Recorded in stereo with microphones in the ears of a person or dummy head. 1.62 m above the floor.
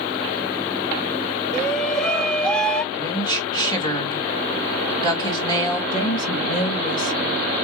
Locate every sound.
1.5 s a shout: 5° left (ahead or behind), 1.3 m
2.9 s a woman speaking: 20° left (ahead or behind), 2.5 m
5.9 s a woman speaking: 45° left (ahead or behind), 2.5 m